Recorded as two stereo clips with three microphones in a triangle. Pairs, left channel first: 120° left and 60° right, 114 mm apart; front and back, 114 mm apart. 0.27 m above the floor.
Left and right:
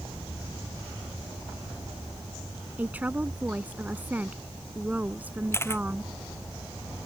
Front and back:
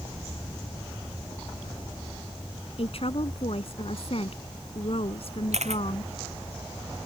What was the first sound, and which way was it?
A woman speaking, 15° left.